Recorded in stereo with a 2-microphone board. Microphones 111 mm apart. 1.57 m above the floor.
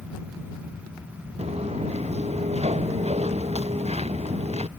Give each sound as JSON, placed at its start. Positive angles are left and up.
{"t": 1.4, "sound": "footsteps", "side_deg": -80}